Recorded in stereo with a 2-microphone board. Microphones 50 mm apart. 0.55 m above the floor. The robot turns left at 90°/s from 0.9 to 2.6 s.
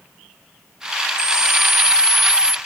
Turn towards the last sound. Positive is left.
turn(degrees=145)